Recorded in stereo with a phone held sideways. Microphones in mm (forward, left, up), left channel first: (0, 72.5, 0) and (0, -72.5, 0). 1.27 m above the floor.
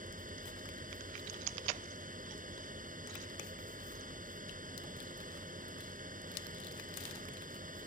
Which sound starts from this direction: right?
A fan, at 0.0 s.